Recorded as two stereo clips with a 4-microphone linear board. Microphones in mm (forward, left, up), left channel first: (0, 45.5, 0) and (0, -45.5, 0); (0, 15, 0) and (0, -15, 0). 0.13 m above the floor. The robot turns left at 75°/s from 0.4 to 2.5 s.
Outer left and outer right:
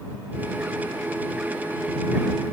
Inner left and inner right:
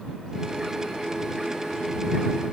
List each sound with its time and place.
Only background noise.